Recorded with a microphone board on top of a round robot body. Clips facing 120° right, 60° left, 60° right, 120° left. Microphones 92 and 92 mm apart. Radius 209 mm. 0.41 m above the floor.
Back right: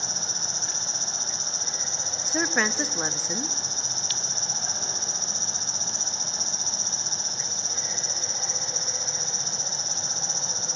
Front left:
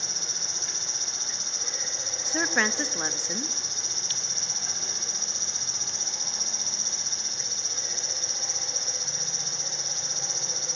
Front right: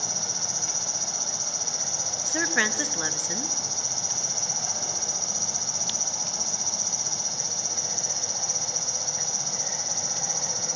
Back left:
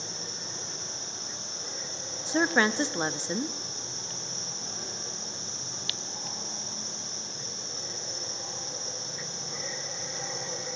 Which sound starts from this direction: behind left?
A woman speaking, at 2.3 s.